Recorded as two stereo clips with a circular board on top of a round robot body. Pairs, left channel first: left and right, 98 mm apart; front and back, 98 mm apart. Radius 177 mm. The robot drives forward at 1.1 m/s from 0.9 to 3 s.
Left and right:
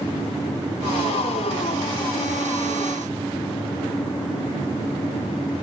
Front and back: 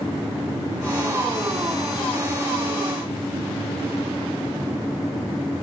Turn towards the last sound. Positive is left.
No sound to turn to.